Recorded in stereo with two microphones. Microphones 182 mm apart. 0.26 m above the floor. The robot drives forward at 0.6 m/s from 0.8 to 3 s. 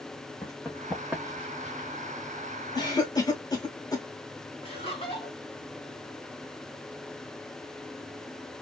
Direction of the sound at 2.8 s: 25° left (ahead or behind).